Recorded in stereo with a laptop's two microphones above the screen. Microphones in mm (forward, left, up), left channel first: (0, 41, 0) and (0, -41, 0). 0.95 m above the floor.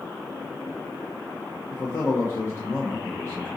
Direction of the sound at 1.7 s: 30° left (ahead or behind).